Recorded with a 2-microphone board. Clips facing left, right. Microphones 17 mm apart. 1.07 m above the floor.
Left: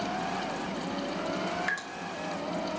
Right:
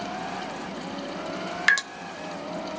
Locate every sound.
1.7 s dripping: 65° right (ahead or behind), 0.6 m